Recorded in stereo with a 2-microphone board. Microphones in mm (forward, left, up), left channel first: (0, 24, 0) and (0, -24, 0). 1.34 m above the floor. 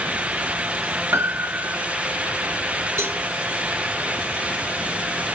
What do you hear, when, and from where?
1.1 s a piano: 60° right (ahead or behind), 0.8 m
3.0 s a cowbell: 90° right, 3.5 m